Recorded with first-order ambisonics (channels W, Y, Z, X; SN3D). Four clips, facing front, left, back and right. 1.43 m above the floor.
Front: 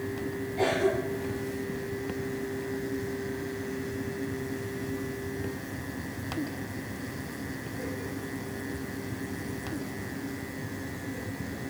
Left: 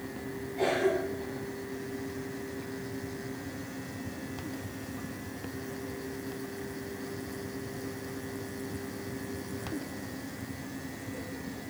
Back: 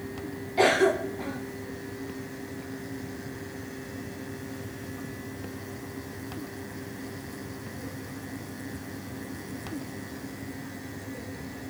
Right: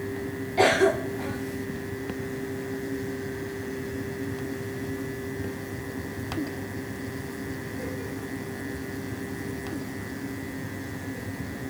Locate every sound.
0.6 s a cough: 125° right, 0.5 m